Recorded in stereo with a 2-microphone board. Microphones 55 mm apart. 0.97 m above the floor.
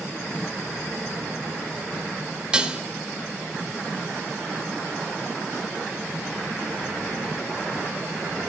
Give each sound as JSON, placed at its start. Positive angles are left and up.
{"t": 2.5, "sound": "dishes clattering", "side_deg": -20, "distance_m": 1.1}